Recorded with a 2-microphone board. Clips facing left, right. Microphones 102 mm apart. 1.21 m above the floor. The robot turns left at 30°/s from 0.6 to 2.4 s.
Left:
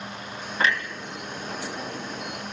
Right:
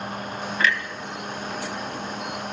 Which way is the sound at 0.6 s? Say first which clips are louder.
Even; 30° left (ahead or behind).